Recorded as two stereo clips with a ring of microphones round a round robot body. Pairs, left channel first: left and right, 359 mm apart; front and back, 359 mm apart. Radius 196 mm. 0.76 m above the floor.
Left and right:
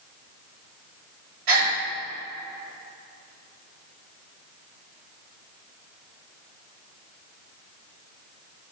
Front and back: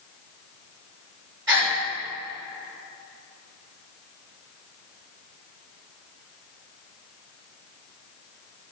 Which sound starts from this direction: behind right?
A gasp, at 1.5 s.